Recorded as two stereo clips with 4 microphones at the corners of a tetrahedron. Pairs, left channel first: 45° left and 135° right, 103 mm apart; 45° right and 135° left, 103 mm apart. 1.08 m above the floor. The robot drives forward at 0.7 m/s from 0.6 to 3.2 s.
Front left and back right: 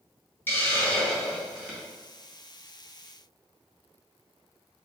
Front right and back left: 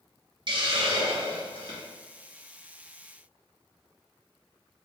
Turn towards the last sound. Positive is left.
turn(degrees=160)